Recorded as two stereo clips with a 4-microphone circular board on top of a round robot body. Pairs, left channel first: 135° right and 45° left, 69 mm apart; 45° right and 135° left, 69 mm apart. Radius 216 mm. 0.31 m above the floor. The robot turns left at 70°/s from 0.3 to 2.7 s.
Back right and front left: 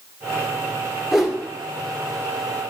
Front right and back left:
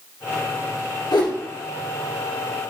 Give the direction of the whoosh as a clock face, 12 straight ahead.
1 o'clock.